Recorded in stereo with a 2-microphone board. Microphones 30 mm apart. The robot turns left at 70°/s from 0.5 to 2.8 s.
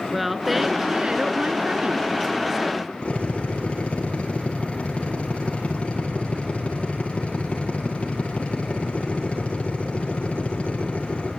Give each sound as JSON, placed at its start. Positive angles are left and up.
{"t": 0.1, "sound": "a woman speaking", "azimuth_deg": -5, "distance_m": 1.8}
{"t": 3.0, "sound": "a drill", "side_deg": 40, "distance_m": 9.5}